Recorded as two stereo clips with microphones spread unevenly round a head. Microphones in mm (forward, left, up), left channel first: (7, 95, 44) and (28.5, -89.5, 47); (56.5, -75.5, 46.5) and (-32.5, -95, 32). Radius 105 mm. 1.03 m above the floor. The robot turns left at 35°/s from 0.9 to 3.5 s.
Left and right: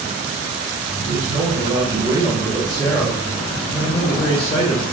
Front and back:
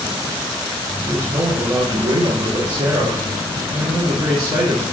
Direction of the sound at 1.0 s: 115° right.